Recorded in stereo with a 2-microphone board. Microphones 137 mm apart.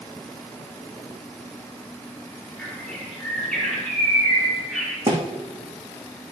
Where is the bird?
5° left (ahead or behind), 5 m.